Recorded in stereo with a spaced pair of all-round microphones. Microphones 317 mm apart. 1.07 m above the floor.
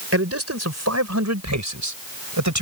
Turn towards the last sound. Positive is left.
turn(degrees=-70)  # may be behind; listen again after turning